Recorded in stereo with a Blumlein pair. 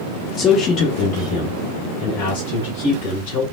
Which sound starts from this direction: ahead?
A man speaking, at 0.4 s.